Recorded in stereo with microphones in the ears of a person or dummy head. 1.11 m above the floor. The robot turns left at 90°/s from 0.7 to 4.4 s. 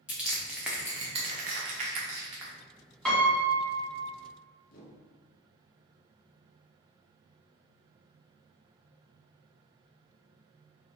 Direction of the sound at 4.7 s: 50° left (ahead or behind).